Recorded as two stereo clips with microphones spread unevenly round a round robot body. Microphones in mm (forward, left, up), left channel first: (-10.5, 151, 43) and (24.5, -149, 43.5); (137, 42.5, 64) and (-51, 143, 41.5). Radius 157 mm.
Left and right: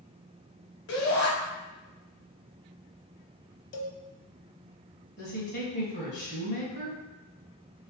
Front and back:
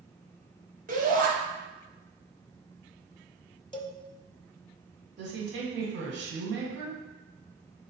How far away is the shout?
About 1.9 m.